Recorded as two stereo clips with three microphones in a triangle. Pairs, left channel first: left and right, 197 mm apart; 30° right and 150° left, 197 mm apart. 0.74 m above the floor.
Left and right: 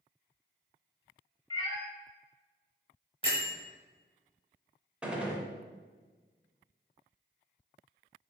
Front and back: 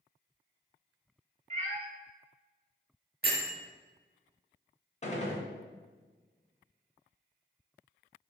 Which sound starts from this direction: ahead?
A gunshot, at 5.0 s.